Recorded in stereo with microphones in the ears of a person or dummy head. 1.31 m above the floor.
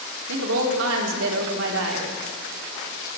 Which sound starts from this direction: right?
A woman speaking, at 0.3 s.